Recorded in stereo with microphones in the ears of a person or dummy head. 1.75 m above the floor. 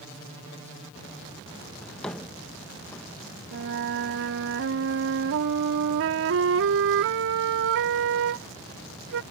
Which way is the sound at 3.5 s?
60° right (ahead or behind).